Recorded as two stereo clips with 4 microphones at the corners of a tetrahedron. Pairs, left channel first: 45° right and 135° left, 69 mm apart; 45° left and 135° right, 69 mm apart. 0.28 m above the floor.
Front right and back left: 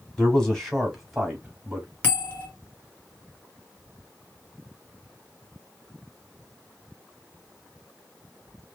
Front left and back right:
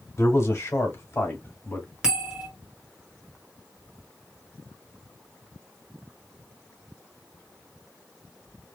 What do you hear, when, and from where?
0.2 s a man speaking: 30° left, 1.8 m; by 1.9 s 75° left, 1.4 m
2.0 s a bell: 70° right, 1.5 m